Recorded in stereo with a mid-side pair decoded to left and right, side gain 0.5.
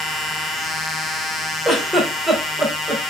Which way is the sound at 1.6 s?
Straight ahead.